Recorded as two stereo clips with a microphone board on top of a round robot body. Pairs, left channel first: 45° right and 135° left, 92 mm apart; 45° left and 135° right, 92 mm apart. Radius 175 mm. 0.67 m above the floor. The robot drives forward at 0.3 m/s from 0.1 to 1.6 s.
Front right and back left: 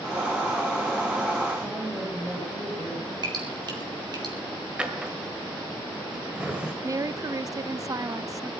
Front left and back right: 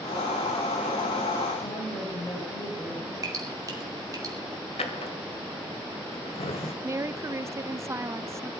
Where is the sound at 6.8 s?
175° left, 0.7 m.